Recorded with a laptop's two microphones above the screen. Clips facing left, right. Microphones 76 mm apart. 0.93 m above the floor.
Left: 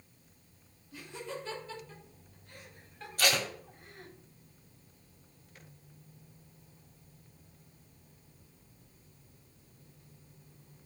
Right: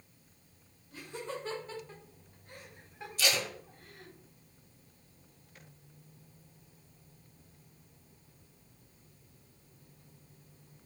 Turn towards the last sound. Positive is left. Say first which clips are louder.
# left 3 dB
turn(degrees=50)  # may be behind; listen again after turning